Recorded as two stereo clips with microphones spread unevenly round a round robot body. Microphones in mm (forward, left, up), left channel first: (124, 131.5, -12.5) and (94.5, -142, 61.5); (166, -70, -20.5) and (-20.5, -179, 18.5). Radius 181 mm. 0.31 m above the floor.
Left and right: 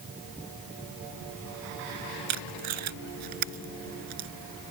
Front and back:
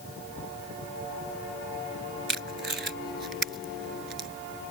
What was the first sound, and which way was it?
Tape being pulled, 115° right.